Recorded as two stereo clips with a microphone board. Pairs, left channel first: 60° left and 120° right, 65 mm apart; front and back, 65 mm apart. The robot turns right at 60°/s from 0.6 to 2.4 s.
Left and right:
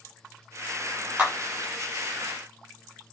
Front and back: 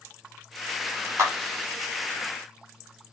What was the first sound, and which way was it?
A clap, 175° left.